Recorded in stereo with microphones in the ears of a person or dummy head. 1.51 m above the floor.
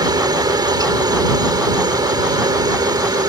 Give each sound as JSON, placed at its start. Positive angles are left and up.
{"t": 0.0, "sound": "a helicopter", "side_deg": -20}